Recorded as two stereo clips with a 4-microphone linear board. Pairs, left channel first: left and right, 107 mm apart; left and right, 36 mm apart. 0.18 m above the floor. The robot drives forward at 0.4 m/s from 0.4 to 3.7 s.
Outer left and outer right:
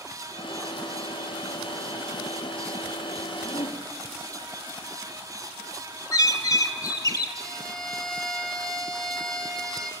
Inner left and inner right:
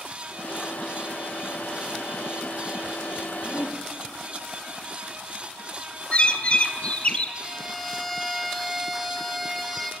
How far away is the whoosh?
About 3 m.